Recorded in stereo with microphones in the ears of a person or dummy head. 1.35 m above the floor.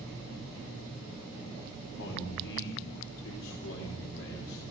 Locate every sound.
2.0 s a man speaking: 70° left (ahead or behind), 4 m